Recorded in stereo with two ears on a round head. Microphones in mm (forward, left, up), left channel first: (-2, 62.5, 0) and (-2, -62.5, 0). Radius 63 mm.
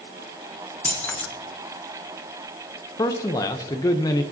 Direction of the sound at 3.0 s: 25° left (ahead or behind).